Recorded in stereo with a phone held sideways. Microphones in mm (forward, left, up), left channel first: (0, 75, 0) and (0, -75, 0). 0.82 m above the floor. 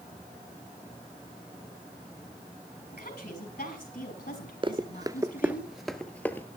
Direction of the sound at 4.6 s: 35° right (ahead or behind).